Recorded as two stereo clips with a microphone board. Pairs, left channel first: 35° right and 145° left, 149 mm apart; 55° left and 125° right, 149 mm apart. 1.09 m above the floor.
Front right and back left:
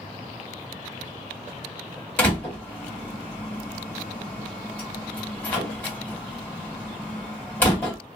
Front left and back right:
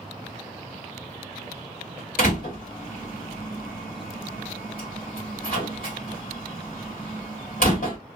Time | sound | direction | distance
2.2 | a door slam | 40° left | 1.4 m